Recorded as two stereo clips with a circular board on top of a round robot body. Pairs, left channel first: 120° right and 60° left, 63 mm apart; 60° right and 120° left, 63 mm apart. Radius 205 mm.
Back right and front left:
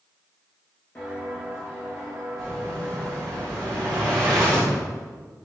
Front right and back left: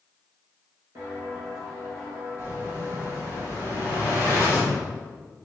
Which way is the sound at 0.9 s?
165° left.